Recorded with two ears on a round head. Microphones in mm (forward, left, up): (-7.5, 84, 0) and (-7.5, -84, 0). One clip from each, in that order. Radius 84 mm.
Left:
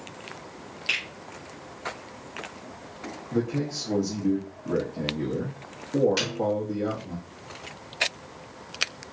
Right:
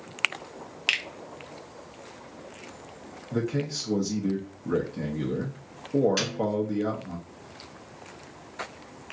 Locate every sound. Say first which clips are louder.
0.9 s a finger snap: right 1 dB; 55° right (ahead or behind), 0.8 m
3.3 s a man speaking: left 1 dB; 70° right (ahead or behind), 0.8 m
6.2 s a snare drum: left 1 dB; 10° left (ahead or behind), 2.5 m